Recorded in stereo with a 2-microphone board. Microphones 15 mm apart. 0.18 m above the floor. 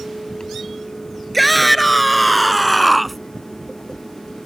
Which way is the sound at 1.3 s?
Centre (ahead or behind).